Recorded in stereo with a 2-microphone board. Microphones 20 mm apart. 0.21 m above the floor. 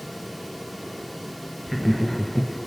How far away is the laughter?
About 4 m.